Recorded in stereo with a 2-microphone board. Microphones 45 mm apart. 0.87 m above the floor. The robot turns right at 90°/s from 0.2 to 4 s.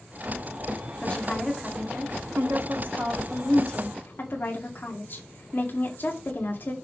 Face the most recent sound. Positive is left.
turn(degrees=45)